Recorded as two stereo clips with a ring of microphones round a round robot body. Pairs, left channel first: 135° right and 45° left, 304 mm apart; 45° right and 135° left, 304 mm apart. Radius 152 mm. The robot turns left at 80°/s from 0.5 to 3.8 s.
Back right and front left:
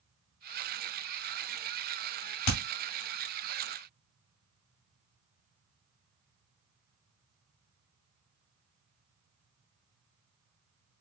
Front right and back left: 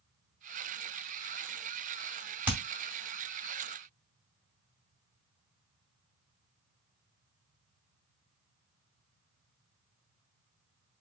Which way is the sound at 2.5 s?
135° right.